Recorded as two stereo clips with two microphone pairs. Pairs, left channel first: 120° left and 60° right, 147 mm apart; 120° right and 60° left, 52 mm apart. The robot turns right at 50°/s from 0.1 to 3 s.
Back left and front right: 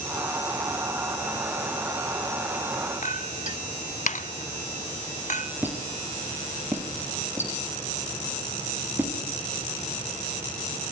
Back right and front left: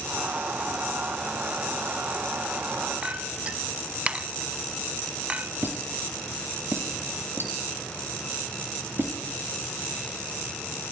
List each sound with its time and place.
3.0 s a clink: 125° left, 0.9 m
5.6 s a squeak: 20° left, 4.5 m